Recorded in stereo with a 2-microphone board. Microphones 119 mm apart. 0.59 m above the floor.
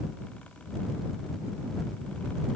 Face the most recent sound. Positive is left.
No sound to turn to.